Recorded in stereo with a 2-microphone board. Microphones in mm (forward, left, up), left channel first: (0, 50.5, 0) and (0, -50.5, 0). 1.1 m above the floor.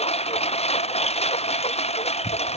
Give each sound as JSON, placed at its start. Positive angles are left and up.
{"t": 0.0, "sound": "a lawn mower", "side_deg": 75}